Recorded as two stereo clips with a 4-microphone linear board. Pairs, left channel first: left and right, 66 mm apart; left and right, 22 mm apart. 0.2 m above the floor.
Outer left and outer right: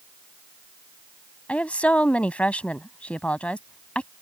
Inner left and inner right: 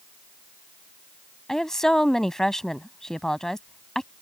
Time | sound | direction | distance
1.5 | a woman speaking | 20° left (ahead or behind) | ?